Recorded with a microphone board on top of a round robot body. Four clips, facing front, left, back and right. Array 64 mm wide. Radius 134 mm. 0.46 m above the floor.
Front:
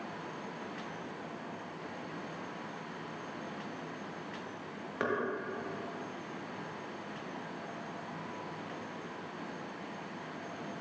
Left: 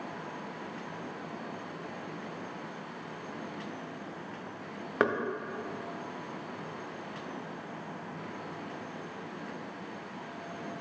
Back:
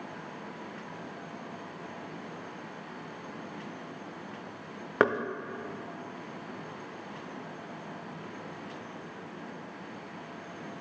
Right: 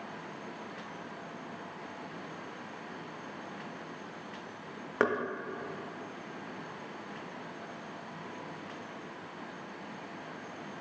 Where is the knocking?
175° left, 0.6 m.